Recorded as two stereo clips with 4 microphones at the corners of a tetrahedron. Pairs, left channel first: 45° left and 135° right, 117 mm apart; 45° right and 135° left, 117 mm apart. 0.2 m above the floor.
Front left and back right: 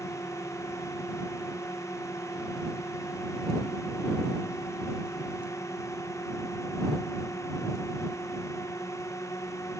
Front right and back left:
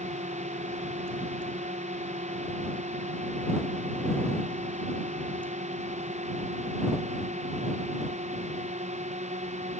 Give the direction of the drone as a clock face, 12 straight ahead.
8 o'clock.